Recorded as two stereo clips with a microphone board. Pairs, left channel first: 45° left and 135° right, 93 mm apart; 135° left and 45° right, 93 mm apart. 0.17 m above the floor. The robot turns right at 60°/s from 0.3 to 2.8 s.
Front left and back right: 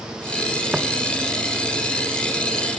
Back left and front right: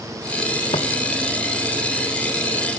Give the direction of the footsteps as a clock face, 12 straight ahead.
7 o'clock.